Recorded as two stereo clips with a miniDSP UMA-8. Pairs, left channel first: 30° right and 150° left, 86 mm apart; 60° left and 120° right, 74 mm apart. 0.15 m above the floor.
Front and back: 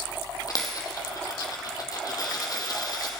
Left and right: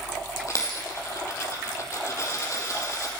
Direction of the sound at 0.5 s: 10° left.